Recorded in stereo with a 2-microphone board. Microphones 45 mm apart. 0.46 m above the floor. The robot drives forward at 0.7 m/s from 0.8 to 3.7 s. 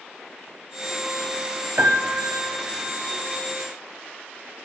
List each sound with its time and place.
1.8 s a piano: 45° right (ahead or behind), 1.3 m; by 3.0 s 75° right (ahead or behind), 0.9 m